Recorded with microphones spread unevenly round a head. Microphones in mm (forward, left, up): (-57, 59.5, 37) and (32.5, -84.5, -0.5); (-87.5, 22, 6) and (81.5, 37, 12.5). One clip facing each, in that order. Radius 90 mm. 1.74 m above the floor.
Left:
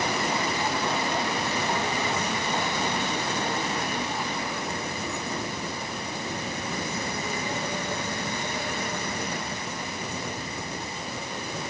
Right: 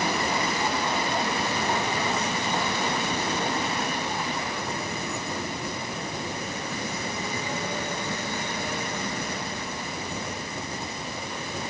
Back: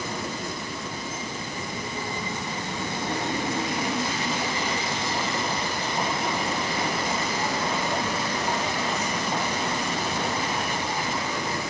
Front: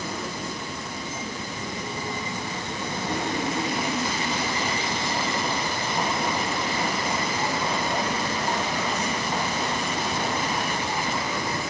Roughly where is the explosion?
No explosion in this recording.